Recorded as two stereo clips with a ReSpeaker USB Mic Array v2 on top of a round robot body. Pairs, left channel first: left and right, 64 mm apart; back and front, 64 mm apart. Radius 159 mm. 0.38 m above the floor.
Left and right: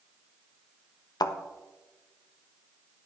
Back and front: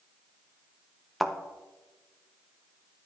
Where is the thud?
90° left, 0.6 m.